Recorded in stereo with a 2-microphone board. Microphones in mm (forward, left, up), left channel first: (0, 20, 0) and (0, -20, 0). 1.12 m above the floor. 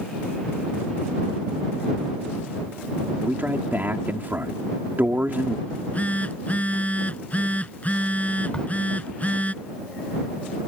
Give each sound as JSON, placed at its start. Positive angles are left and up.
{"t": 3.2, "sound": "a man speaking", "side_deg": -55}
{"t": 5.7, "sound": "a phone buzzing", "side_deg": 40}
{"t": 8.5, "sound": "a crack", "side_deg": 25}